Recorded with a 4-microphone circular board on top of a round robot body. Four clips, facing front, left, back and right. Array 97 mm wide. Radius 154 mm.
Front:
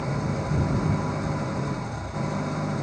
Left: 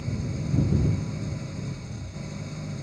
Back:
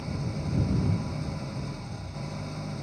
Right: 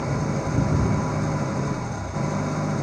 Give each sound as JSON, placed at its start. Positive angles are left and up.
{"t": 0.0, "sound": "an engine running", "azimuth_deg": -55}